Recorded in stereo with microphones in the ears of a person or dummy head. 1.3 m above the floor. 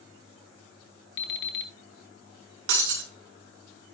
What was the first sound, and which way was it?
An alarm clock, 70° left (ahead or behind).